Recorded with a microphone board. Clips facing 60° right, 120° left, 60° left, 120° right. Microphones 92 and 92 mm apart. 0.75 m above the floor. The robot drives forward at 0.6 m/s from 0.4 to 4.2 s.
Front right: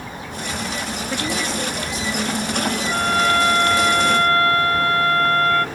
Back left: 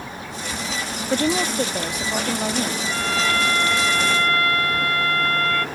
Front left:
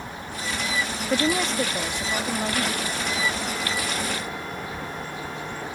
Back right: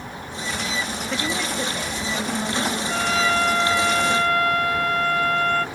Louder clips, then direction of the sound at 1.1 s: Back left 5 dB, front left 5 dB; 100° left.